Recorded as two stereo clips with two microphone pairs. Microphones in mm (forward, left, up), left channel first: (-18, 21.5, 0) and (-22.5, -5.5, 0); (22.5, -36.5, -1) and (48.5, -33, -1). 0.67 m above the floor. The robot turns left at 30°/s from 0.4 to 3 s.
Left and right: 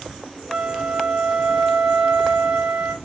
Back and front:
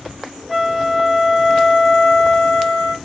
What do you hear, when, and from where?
0.5 s a flute: 60° right, 0.9 m; by 2.9 s 130° right, 0.9 m